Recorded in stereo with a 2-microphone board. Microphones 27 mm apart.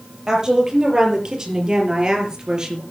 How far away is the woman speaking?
About 6.5 m.